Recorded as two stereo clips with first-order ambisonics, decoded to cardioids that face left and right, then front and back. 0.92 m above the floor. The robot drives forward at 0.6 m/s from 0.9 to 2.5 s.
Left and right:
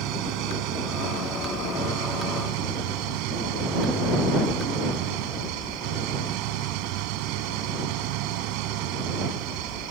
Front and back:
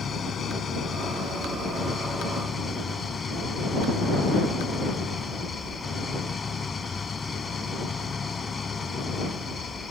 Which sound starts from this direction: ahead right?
An engine running, at 0.0 s.